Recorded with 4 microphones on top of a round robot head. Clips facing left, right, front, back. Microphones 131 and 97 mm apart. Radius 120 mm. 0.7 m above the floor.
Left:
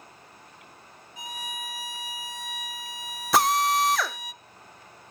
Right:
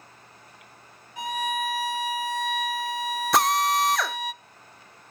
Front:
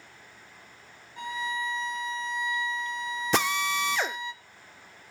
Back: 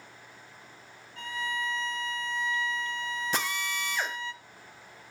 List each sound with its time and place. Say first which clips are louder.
1.2 s a violin: right 11 dB, front 2 dB; 70° right, 0.5 m
3.3 s a drill: left 1 dB, front 10 dB; straight ahead, 0.5 m